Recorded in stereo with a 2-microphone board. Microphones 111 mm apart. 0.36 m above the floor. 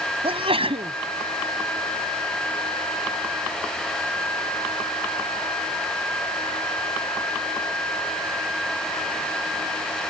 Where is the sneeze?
55° right (ahead or behind).